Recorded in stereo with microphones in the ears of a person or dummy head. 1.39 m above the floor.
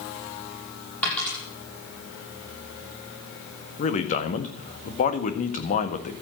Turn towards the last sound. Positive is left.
turn(degrees=40)  # may be behind; listen again after turning